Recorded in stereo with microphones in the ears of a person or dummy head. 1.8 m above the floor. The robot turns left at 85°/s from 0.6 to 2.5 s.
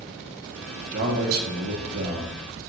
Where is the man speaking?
45° right, 1.4 m; by 2.4 s 170° right, 1.4 m.